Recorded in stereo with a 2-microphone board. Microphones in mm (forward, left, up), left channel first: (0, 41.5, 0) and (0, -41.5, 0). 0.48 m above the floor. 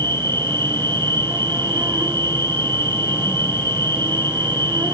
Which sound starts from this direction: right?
An insect, at 0.0 s.